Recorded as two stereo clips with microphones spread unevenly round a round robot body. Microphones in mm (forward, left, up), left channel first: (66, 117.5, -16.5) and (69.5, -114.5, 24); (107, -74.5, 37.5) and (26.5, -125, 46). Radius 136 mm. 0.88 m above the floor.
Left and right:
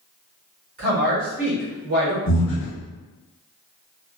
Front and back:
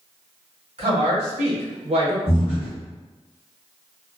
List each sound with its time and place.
0.8 s a woman speaking: 150° right, 1.5 m
2.3 s breathing: 65° left, 0.7 m